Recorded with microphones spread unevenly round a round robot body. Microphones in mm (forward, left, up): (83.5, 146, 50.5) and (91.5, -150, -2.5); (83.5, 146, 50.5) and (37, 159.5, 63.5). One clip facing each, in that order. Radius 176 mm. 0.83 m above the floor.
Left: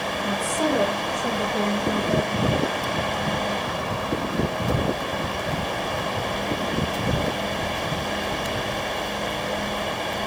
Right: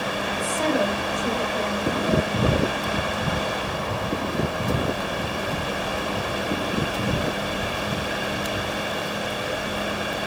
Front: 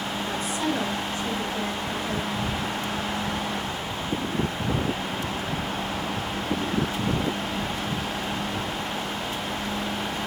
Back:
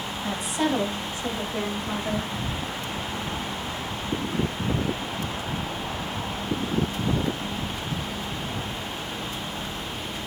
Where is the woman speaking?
150° left, 7.5 m; by 2.3 s 145° left, 6 m.